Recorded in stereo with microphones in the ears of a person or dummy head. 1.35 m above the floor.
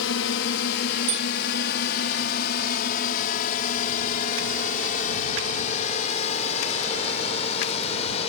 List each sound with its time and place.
0.0 s a drone: 70° left (ahead or behind); by 8.3 s 35° left (ahead or behind)
1.1 s a bicycle bell: 85° right